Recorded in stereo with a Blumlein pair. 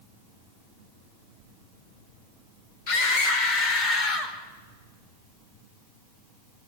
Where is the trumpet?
No trumpet in this recording.